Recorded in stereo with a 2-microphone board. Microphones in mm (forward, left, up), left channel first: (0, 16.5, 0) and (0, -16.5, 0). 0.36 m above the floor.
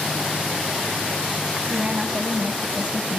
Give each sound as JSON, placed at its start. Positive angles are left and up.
{"t": 1.7, "sound": "a woman speaking", "side_deg": -30, "distance_m": 3.0}